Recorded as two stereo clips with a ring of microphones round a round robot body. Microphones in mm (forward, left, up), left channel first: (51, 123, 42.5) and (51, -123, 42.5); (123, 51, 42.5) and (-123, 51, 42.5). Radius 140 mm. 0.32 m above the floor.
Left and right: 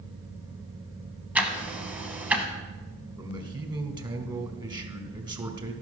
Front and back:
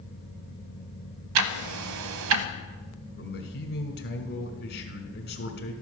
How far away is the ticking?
About 0.8 m.